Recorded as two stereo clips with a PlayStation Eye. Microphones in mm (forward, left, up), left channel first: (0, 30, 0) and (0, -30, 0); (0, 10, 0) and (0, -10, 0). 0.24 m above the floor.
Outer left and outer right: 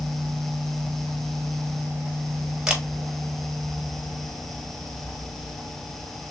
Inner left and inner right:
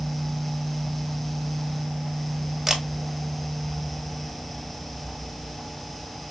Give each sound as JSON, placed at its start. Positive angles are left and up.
{"t": 2.7, "sound": "a camera shutter", "side_deg": -10, "distance_m": 1.1}